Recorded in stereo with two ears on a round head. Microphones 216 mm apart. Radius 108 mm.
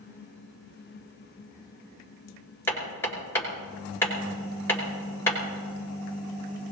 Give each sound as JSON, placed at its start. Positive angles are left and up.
{"t": 2.7, "sound": "hammering", "side_deg": 10, "distance_m": 5.5}